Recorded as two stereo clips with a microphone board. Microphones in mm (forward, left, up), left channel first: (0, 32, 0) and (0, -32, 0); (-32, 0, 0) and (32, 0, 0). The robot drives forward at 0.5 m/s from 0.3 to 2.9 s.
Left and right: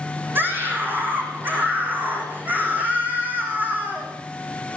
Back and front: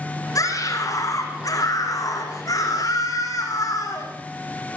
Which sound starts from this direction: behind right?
A scream, at 0.3 s.